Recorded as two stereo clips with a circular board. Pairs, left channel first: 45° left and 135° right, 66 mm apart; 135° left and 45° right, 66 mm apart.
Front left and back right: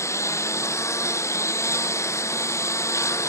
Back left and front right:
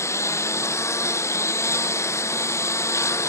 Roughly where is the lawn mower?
Left.